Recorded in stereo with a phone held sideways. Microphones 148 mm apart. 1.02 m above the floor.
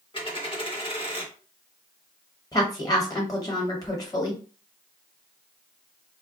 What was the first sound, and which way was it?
A dropped coin, 40° left (ahead or behind).